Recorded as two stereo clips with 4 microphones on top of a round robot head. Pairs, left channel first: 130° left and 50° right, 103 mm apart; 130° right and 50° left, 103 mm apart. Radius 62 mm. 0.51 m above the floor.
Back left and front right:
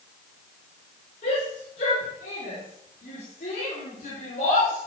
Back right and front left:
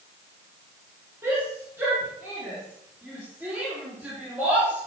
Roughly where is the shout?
Behind left.